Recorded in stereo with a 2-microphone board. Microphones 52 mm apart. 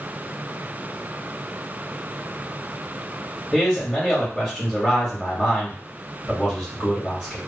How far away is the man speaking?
About 1.5 m.